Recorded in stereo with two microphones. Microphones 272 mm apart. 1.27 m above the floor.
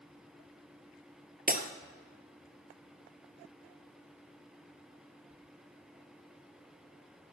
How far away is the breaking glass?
About 1.5 m.